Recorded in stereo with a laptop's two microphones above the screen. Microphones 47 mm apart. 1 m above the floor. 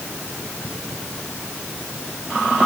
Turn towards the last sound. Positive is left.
No sound to turn to.